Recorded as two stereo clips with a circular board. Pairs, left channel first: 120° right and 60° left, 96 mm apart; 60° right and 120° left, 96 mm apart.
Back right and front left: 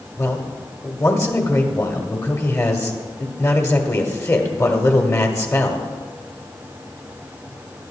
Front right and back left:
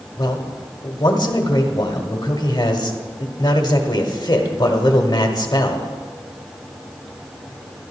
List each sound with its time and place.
0.2 s a man speaking: 75° right, 1.3 m